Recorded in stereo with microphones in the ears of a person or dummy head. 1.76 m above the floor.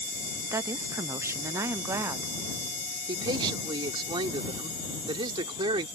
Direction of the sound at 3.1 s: 30° right (ahead or behind).